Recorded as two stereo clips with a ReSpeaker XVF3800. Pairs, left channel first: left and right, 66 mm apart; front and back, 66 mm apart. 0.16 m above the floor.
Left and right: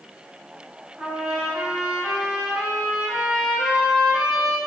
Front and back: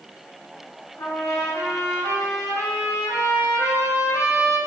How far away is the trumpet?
About 1.0 m.